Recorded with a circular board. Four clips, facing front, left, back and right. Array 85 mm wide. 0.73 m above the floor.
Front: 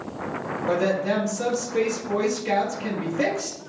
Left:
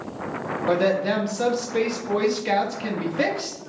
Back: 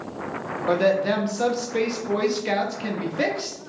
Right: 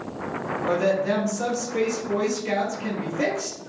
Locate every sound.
0.7 s a woman speaking: 135° left, 0.7 m